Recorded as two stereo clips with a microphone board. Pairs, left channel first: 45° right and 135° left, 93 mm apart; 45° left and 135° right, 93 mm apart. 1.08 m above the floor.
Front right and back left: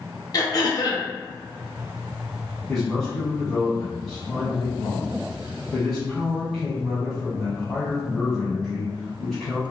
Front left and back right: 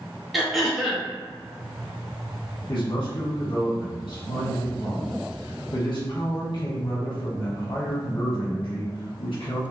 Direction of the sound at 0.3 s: 45° right.